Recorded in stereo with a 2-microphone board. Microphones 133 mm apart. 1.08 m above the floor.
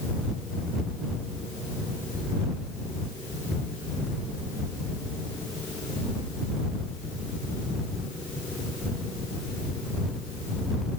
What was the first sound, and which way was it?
Only background noise.